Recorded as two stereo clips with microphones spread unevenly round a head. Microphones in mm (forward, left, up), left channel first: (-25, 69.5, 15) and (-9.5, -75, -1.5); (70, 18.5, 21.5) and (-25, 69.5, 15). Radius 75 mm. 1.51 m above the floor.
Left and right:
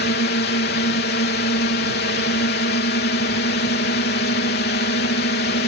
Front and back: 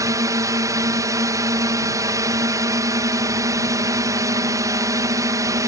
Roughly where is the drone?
Left.